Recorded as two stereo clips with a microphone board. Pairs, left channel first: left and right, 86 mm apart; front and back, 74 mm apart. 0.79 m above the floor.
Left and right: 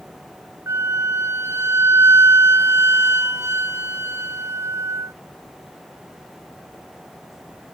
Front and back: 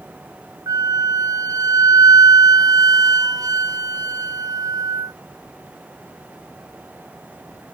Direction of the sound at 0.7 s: 145° right.